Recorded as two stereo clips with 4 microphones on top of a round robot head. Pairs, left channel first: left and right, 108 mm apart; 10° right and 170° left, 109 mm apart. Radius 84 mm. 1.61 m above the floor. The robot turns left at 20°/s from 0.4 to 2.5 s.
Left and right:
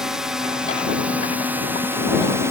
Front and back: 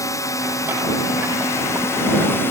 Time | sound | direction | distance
0.0 | a drone | 10° right | ?